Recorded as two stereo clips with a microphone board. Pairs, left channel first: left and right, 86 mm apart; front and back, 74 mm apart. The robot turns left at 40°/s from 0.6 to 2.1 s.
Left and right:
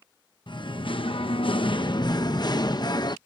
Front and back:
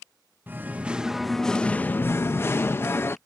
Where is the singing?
115° left; by 3.2 s 55° left.